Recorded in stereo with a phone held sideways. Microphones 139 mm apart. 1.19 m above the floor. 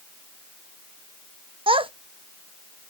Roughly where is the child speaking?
Right.